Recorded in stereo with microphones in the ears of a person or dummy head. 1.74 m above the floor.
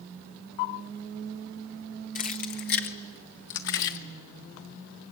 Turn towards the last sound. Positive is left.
turn(degrees=65)  # may be behind; listen again after turning